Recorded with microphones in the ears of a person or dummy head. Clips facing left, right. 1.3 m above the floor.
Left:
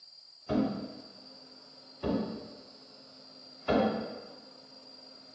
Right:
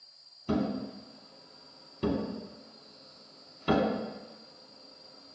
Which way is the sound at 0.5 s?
45° right (ahead or behind).